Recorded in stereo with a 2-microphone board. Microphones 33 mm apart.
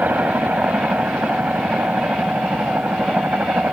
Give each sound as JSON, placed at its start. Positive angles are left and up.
{"t": 0.0, "sound": "a helicopter", "side_deg": -65}